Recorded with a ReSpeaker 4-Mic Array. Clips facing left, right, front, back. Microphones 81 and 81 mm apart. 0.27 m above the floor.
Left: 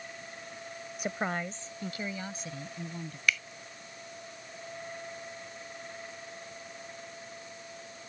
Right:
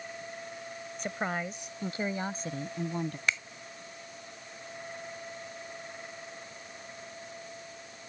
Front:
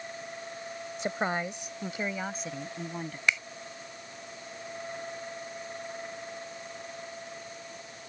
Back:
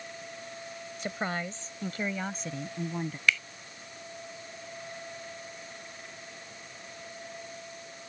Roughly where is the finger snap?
Ahead right.